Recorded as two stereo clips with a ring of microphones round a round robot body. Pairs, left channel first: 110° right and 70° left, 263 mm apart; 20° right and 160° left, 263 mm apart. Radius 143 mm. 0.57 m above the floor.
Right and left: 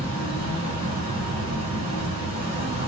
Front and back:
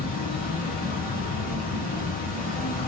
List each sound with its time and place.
0.0 s an insect: 15° left, 1.9 m